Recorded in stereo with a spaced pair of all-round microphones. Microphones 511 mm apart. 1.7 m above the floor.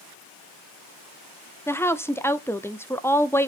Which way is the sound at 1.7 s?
5° left (ahead or behind).